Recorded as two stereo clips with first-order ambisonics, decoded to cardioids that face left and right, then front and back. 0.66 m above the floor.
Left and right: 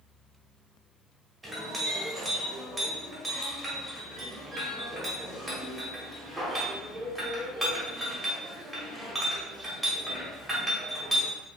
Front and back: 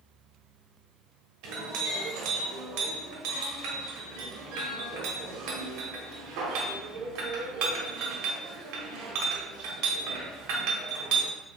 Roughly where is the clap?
No clap in this recording.